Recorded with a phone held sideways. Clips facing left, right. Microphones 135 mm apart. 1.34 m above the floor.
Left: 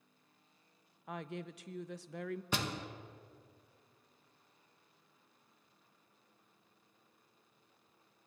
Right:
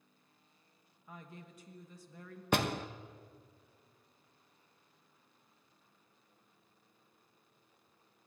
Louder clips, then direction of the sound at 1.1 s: Left 9 dB; 80° left.